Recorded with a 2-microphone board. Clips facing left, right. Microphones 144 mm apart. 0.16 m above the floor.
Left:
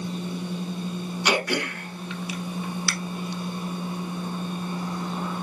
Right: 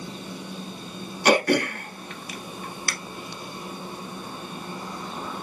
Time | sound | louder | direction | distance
1.2 | throat clearing | right 6 dB | 50° right (ahead or behind) | 0.7 m